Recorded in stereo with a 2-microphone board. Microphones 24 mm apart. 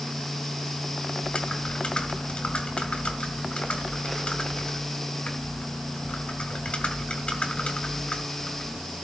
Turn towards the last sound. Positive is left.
turn(degrees=55)  # may be behind; listen again after turning